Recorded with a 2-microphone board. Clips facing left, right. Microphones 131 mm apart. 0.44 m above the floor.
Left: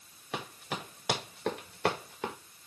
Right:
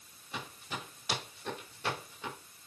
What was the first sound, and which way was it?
Running footsteps, 85° left.